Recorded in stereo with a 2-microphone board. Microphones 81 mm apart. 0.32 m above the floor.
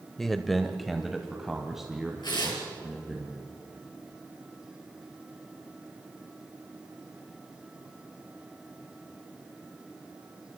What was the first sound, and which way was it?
A man speaking, 5° left (ahead or behind).